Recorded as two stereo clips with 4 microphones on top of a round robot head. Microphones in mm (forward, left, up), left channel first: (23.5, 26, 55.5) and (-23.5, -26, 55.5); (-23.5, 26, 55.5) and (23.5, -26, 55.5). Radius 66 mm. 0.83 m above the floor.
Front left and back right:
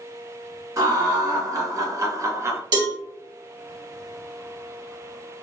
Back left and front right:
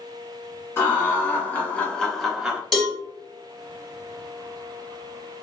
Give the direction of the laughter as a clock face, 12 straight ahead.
6 o'clock.